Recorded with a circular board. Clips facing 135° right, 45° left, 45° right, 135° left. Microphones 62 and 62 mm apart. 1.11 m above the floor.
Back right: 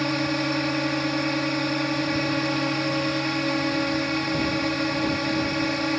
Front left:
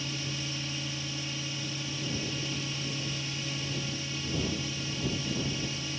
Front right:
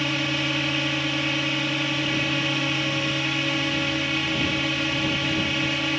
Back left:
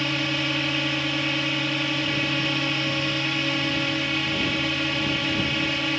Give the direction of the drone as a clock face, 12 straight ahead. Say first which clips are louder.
Back right 13 dB, even; 4 o'clock.